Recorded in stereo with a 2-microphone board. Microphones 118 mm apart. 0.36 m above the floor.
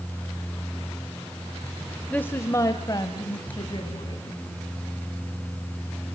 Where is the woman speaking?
10° left (ahead or behind), 0.9 m; by 4.4 s 45° left (ahead or behind), 3 m.